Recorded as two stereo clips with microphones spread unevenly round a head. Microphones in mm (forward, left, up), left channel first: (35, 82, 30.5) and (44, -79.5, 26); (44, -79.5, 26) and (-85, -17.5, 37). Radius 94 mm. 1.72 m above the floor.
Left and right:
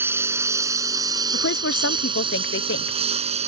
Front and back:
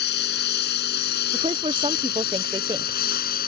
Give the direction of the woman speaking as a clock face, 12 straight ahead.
9 o'clock.